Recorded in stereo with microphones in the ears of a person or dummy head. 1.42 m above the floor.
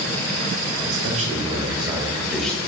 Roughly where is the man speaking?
Right.